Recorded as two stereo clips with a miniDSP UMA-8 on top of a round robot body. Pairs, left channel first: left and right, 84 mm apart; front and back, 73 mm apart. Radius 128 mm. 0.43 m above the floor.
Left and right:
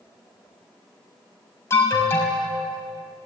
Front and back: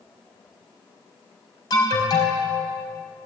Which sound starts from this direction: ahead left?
An alarm, at 1.7 s.